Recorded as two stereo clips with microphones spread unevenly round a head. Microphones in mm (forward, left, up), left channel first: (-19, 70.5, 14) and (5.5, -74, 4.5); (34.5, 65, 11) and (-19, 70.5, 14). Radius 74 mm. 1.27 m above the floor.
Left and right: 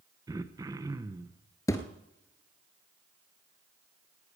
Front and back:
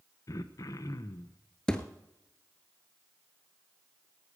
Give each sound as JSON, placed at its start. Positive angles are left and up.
{"t": 0.3, "sound": "throat clearing", "azimuth_deg": -15, "distance_m": 0.8}
{"t": 1.7, "sound": "a thud", "azimuth_deg": 60, "distance_m": 1.3}